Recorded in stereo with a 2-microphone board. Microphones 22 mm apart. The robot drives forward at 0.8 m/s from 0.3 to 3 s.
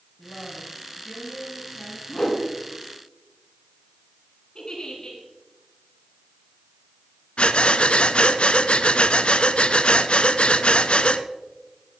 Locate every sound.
0.2 s a woman speaking: 45° left (ahead or behind), 3 m; by 2.0 s 35° left (ahead or behind), 4 m
2.1 s a whoosh: 20° left (ahead or behind), 4 m
4.5 s a giggle: 35° left (ahead or behind), 3.5 m
7.4 s breathing: 65° left (ahead or behind), 0.6 m